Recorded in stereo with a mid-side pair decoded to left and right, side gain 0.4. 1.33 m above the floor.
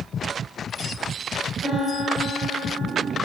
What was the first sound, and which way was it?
A piano, 60° right.